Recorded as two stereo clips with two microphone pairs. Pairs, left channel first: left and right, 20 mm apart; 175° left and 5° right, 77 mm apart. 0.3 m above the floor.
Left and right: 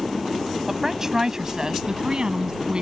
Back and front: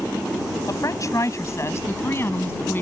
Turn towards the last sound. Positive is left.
turn(degrees=-125)